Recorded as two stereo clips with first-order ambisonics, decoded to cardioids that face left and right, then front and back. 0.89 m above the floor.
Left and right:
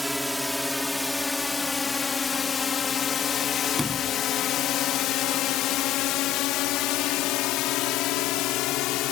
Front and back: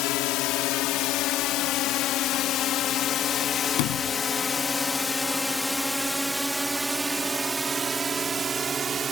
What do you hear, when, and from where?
0.0 s a drone: straight ahead; by 9.1 s 115° left
3.8 s a sliding door: 5° left